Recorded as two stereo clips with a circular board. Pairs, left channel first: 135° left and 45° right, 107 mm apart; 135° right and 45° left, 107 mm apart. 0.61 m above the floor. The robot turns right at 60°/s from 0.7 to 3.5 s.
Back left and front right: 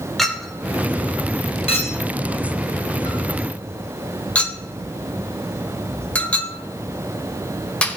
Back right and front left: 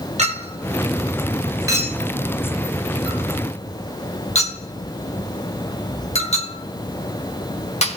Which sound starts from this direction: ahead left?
A clink, at 0.2 s.